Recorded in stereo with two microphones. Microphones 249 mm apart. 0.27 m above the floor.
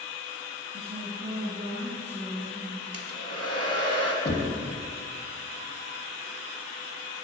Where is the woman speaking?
40° right (ahead or behind), 1.4 m; by 2.8 s 20° right (ahead or behind), 3 m.